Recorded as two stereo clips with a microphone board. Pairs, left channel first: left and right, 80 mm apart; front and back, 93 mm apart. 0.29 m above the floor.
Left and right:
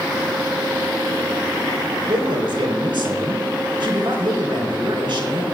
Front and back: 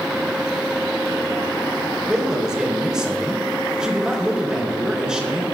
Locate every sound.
2.1 s a man speaking: 100° right, 3 m